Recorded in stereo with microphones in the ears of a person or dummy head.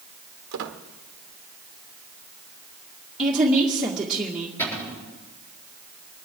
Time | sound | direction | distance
0.5 | a squeak | 50° right (ahead or behind) | 1.1 m
3.2 | a woman speaking | 10° right (ahead or behind) | 2 m
4.6 | a cupboard door | 5° left (ahead or behind) | 8 m